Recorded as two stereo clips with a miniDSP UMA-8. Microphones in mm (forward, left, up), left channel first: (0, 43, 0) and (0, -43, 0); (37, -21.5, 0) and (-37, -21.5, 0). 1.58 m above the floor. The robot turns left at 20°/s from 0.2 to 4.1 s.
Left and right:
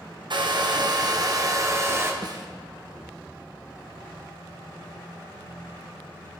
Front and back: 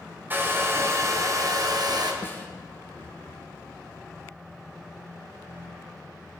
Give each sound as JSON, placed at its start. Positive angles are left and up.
{"t": 0.3, "sound": "a hair dryer", "azimuth_deg": -115, "distance_m": 1.2}
{"t": 2.2, "sound": "a snare drum", "azimuth_deg": -60, "distance_m": 1.1}